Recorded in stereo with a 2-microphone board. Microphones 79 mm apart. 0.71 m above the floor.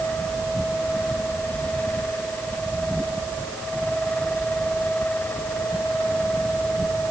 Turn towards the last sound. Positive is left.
No sound to turn to.